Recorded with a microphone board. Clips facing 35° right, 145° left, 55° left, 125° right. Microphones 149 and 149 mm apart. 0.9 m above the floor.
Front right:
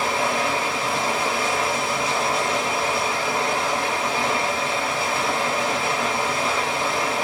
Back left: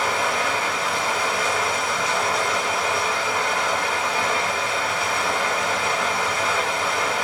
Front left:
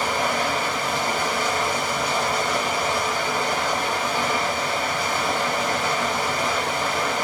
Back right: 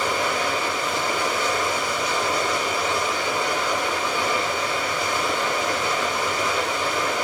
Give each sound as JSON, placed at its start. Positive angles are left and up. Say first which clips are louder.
{"t": 0.0, "sound": "running water", "louder": "front right 1 dB, even", "azimuth_deg": 20, "distance_m": 1.4}